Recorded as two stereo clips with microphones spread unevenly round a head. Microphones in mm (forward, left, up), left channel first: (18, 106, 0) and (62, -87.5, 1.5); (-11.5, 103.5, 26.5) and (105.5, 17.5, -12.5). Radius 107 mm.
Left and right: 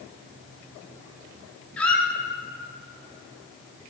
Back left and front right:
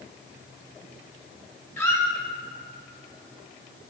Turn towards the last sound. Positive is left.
turn(degrees=-175)